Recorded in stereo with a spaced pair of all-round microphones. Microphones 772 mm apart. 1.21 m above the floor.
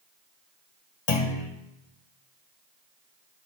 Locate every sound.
1.1 s a clunk: 50° left (ahead or behind), 1.0 m